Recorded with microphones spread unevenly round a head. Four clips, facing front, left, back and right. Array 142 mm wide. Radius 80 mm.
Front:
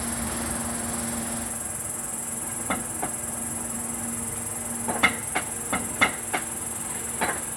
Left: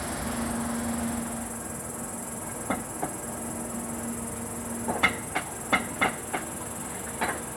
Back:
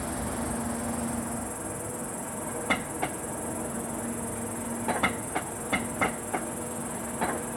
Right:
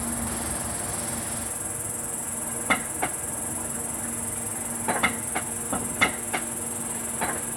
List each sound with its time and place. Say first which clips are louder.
0.0 s an insect: left 1 dB, front 1 dB; 175° left, 0.8 m